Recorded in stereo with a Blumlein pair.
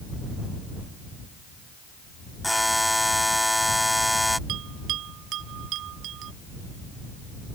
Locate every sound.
2.4 s a buzzer: straight ahead
4.5 s a bell: 35° right